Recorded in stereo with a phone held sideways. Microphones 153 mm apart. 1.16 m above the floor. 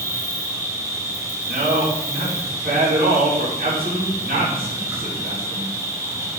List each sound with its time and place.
0.0 s an insect: 20° right (ahead or behind), 1.6 m
1.4 s a man speaking: 80° right, 3 m